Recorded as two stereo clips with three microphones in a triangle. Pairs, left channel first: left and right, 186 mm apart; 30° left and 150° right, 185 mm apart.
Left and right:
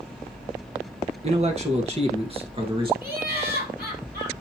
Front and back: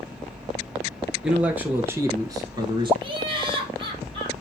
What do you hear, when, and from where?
1.2 s a man speaking: 65° right, 1.7 m; by 2.9 s 120° right, 1.4 m
3.0 s laughter: 95° right, 3 m